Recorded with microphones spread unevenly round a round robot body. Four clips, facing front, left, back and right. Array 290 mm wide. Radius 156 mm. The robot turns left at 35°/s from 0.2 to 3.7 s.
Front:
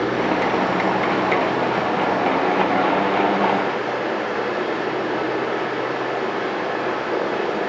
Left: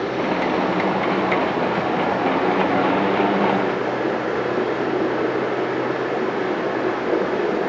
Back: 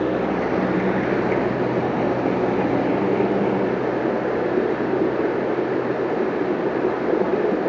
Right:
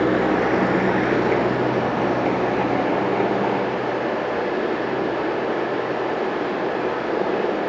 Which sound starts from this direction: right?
Running water, at 0.0 s.